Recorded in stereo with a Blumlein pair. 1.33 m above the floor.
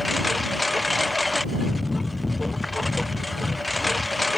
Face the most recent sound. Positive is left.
turn(degrees=5)